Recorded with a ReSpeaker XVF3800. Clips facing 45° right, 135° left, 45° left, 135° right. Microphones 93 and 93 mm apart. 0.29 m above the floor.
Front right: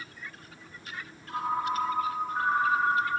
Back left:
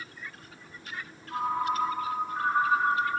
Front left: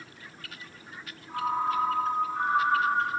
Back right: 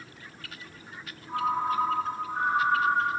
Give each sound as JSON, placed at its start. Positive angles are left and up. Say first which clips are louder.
{"t": 1.3, "sound": "a ringtone", "louder": "back left 1 dB, back right 1 dB", "azimuth_deg": -105, "distance_m": 3.0}